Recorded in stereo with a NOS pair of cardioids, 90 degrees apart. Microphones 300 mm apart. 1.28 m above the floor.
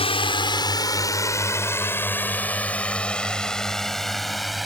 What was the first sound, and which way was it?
A drone, 20° left.